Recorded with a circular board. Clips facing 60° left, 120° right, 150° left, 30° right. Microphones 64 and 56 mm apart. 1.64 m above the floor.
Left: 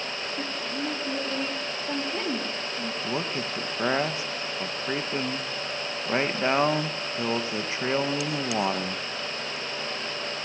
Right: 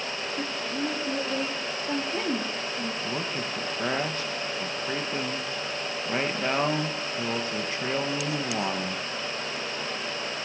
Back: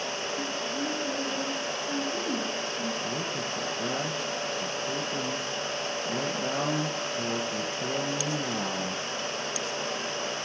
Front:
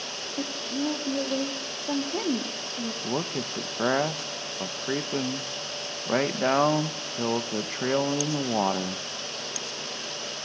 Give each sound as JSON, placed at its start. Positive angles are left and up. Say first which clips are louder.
{"t": 0.4, "sound": "a woman speaking", "louder": "right 2 dB, front 1 dB", "azimuth_deg": -35, "distance_m": 4.0}
{"t": 3.0, "sound": "a man speaking", "louder": "left 1 dB, front 2 dB", "azimuth_deg": -10, "distance_m": 1.9}